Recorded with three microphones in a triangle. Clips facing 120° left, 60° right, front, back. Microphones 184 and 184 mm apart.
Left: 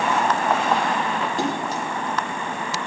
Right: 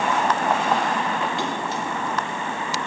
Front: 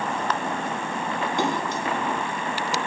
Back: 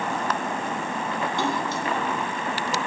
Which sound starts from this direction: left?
A splash, at 1.4 s.